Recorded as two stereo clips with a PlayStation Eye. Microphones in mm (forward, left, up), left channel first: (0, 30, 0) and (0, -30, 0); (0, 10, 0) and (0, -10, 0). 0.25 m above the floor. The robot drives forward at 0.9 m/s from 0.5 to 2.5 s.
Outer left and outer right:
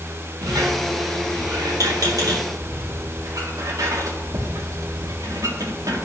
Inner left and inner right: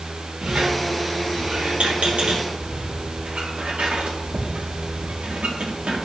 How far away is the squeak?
About 3.5 m.